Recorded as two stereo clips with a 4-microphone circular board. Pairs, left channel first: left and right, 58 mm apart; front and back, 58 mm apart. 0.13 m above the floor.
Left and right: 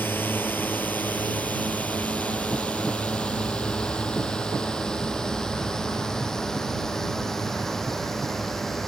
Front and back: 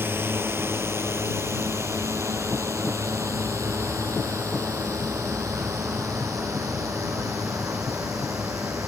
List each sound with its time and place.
0.0 s a drone: 140° left; by 8.9 s 175° left